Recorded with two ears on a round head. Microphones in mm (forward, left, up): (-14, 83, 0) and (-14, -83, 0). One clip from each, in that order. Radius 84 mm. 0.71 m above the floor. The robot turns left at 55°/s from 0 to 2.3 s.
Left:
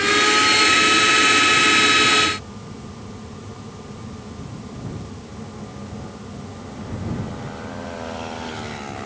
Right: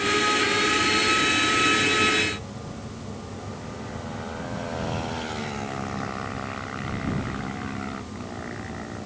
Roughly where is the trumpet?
No trumpet in this recording.